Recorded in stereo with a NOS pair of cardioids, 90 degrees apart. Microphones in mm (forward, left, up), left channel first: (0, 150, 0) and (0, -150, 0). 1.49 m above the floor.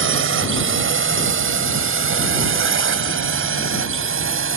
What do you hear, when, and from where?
0.0 s a drone: 45° right